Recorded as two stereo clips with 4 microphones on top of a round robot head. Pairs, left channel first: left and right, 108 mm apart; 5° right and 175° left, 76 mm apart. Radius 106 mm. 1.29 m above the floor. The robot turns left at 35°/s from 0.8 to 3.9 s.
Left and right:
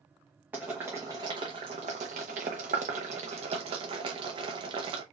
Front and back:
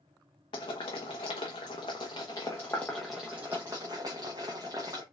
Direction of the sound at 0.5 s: 15° right.